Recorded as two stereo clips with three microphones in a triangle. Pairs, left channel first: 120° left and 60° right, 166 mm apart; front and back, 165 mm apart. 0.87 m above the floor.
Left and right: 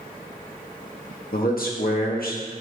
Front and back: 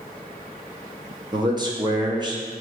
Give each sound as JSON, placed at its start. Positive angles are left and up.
{"t": 1.3, "sound": "a man speaking", "azimuth_deg": 120, "distance_m": 0.9}